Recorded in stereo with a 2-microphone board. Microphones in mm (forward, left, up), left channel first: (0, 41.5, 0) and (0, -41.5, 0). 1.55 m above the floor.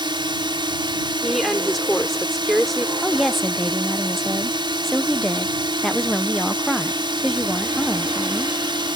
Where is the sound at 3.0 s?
5° left (ahead or behind).